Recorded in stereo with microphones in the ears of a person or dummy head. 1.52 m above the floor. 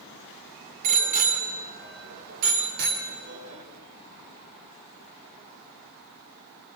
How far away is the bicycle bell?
About 3 m.